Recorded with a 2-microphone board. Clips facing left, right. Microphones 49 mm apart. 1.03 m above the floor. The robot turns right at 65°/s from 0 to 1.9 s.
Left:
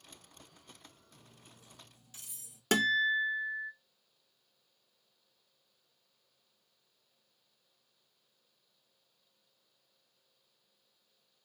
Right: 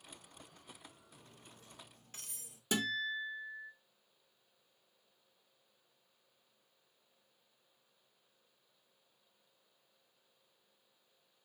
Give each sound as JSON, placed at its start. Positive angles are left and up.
{"t": 1.1, "sound": "cutlery clinking", "side_deg": 0, "distance_m": 1.2}
{"t": 2.7, "sound": "a guitar", "side_deg": 75, "distance_m": 0.6}